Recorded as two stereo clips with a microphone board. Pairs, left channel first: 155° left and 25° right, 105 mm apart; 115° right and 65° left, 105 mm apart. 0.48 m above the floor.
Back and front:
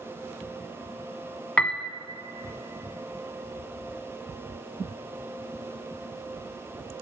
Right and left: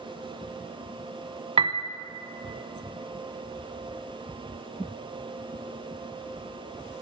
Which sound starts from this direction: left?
A piano, at 1.6 s.